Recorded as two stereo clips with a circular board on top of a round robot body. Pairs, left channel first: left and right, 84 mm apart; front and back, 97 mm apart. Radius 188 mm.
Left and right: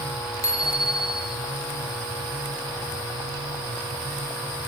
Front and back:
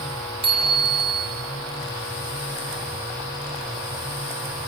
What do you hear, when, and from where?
0.4 s a bicycle bell: 145° left, 5.5 m